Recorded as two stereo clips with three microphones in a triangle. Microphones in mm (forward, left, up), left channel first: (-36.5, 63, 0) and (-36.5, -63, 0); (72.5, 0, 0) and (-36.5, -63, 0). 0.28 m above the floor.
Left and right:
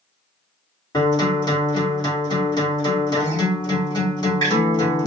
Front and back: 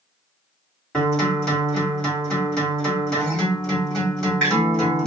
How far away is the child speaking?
I don't hear a child speaking.